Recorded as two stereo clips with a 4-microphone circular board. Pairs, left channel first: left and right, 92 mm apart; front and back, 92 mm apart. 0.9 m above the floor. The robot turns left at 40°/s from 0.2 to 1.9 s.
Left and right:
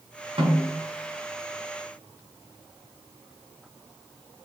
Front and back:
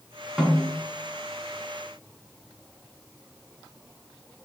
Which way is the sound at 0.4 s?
95° right.